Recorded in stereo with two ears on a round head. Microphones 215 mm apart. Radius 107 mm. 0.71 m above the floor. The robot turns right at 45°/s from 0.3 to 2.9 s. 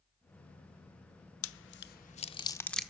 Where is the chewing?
60° left (ahead or behind), 0.6 m; by 2.9 s centre (ahead or behind), 0.6 m.